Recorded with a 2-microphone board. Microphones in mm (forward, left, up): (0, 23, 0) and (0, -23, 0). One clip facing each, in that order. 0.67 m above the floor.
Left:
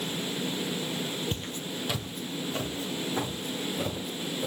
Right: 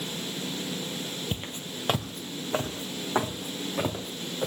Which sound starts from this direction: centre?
Footsteps, at 1.3 s.